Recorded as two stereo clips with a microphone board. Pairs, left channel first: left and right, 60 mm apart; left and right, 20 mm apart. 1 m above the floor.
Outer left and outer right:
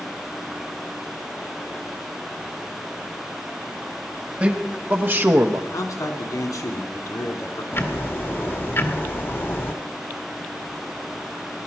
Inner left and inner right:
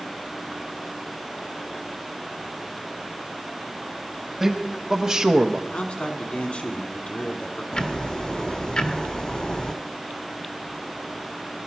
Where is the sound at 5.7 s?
70° left (ahead or behind), 2 m.